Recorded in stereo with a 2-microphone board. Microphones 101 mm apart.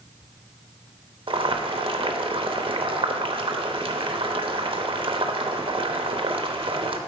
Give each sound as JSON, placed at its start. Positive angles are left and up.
{"t": 1.3, "sound": "boiling", "side_deg": -60, "distance_m": 0.8}